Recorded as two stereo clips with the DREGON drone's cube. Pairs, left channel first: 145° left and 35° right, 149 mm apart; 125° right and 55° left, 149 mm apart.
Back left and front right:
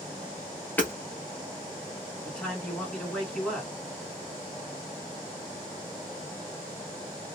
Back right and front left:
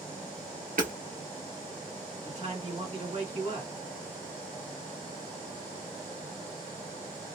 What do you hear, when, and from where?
0.8 s hammering: 70° left, 1.2 m
2.2 s a man speaking: 65° left, 1.5 m